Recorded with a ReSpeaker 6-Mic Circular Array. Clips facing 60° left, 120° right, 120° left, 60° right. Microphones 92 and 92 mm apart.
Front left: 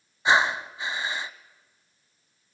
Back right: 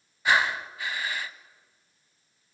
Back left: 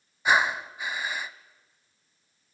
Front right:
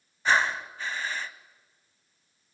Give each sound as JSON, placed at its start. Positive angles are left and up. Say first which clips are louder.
{"t": 0.2, "sound": "breathing", "louder": "front left 2 dB, back left 1 dB", "azimuth_deg": 65, "distance_m": 0.7}